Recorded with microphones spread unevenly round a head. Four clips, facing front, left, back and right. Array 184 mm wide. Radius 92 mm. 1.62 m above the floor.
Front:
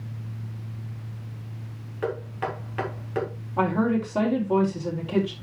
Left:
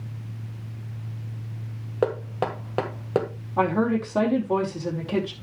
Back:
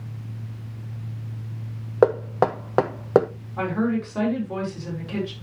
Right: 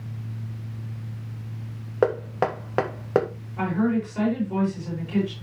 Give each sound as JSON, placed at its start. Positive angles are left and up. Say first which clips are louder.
{"t": 2.0, "sound": "knocking", "louder": "right 3 dB, back 11 dB", "azimuth_deg": -175, "distance_m": 1.3}
{"t": 3.6, "sound": "a woman speaking", "louder": "left 2 dB, front 1 dB", "azimuth_deg": 70, "distance_m": 4.5}